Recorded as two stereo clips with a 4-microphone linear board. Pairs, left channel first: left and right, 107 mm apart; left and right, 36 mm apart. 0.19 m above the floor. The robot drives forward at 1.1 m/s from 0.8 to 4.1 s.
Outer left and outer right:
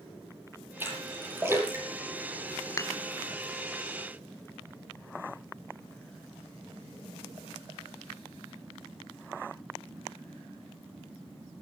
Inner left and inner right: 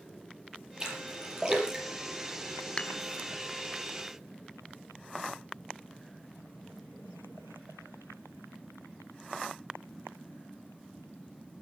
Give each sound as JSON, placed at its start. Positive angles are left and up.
{"t": 0.8, "sound": "a splash", "side_deg": -20, "distance_m": 6.5}
{"t": 2.8, "sound": "dishes clattering", "side_deg": 30, "distance_m": 0.8}